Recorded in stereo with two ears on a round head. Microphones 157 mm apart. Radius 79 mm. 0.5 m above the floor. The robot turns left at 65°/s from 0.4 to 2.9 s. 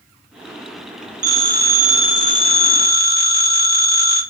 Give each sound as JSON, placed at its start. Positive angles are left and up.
{"t": 1.2, "sound": "a phone ringing", "azimuth_deg": -135, "distance_m": 1.1}